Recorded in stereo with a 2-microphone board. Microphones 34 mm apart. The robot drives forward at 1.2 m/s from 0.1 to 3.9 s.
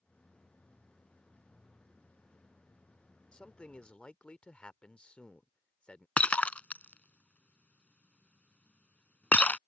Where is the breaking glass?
50° left (ahead or behind).